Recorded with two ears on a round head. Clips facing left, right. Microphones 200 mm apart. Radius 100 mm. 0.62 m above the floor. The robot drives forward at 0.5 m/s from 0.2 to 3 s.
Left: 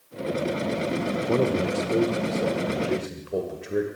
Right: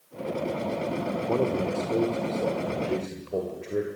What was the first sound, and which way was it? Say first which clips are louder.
A man speaking: left 3 dB; 25° left (ahead or behind).